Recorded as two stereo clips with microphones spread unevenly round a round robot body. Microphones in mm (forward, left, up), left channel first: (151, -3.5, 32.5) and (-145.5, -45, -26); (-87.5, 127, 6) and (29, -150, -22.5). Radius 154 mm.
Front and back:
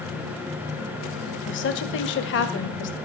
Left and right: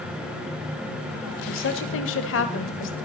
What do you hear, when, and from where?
1.5 s a woman speaking: 65° left, 1.7 m